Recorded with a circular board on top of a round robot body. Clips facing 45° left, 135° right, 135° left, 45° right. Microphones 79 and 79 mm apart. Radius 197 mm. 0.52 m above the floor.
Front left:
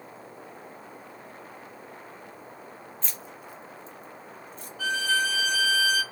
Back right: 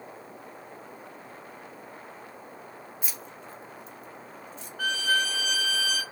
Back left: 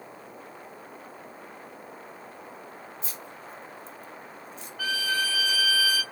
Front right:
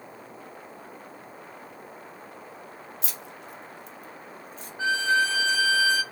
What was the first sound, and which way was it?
Keys jangling, 55° right.